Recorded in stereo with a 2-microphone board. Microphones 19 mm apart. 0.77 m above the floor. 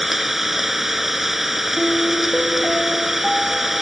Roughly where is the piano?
Left.